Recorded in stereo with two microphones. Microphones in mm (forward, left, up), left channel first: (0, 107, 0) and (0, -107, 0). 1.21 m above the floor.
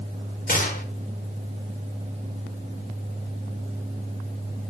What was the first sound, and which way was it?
A gunshot, 40° left (ahead or behind).